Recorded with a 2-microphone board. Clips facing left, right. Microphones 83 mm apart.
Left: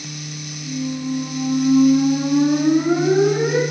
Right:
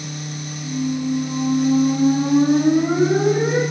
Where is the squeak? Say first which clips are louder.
Right 2 dB; 35° right (ahead or behind), 1.1 m.